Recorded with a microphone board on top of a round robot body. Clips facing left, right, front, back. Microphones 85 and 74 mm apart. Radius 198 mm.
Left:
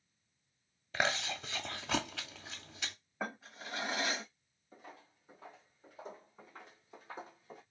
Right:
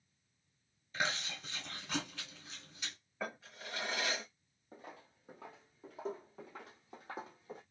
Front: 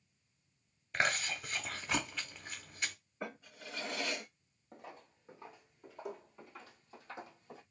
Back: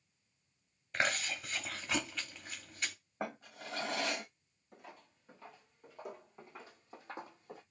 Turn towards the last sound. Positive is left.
turn(degrees=-125)